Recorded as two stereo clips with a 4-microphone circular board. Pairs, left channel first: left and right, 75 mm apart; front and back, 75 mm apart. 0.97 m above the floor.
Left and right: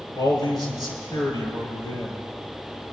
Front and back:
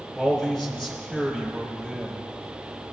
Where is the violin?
I don't hear a violin.